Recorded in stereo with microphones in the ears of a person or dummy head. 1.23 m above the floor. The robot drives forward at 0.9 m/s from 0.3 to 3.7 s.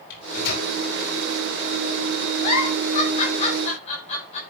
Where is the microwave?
55° left (ahead or behind), 4 m; by 0.7 s 60° left (ahead or behind), 4 m.